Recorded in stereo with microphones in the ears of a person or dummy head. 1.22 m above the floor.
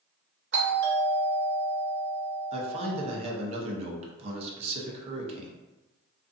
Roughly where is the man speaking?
Right.